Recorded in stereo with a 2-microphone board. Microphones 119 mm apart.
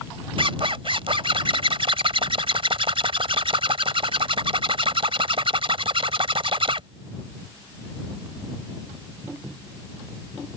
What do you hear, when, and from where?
0.4 s a zipper: 50° right (ahead or behind)